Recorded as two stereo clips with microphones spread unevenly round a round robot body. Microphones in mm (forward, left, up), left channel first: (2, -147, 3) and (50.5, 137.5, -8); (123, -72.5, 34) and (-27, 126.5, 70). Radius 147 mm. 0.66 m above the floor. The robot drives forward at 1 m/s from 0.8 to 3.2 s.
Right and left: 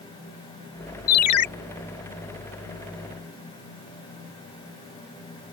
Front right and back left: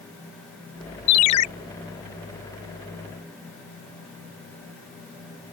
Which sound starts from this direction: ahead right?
A ringtone, at 1.1 s.